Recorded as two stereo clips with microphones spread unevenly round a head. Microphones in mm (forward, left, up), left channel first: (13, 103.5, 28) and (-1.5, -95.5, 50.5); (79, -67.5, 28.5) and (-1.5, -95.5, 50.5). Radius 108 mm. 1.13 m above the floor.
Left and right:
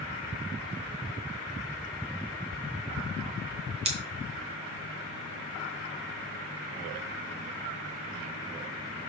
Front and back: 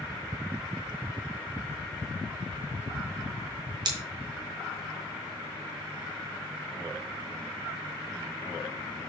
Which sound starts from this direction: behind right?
Scissors, at 3.9 s.